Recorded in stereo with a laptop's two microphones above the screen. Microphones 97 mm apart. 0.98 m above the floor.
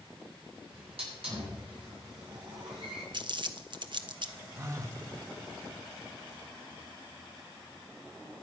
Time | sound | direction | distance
0.7 | a hiss | 80° right | 9 m
3.1 | crumpling | 55° right (ahead or behind) | 1.0 m
4.6 | a phone buzzing | 30° right (ahead or behind) | 0.9 m